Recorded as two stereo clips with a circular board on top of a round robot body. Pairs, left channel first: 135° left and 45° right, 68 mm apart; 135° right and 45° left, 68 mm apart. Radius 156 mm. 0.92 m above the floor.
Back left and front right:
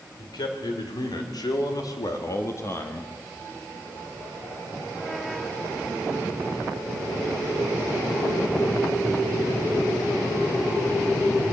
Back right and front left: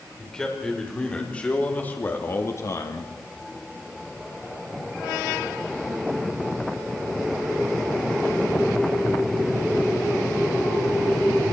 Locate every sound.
0.2 s a man speaking: 140° left, 4.5 m; by 3.1 s 160° right, 1.9 m